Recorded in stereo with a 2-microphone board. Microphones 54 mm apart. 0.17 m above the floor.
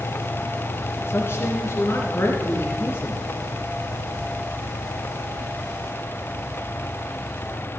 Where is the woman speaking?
50° left (ahead or behind), 2.5 m.